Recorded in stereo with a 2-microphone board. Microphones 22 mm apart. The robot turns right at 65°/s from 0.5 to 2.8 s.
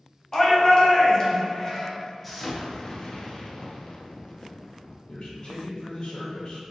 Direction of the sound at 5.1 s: 50° left (ahead or behind).